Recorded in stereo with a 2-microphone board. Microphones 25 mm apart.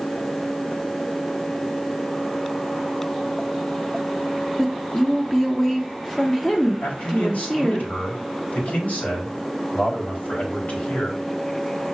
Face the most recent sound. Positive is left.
turn(degrees=85)